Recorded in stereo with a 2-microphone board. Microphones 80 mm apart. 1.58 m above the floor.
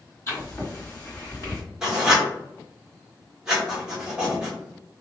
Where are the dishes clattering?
I don't hear dishes clattering.